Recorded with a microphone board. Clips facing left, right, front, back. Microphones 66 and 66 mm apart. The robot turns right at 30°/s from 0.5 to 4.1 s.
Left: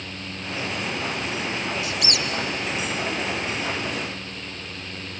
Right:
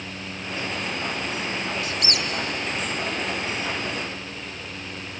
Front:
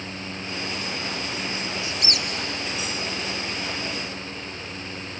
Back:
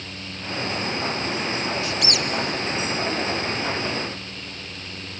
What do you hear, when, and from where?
1.8 s a squeak: 55° right, 0.7 m; by 2.3 s 45° right, 0.7 m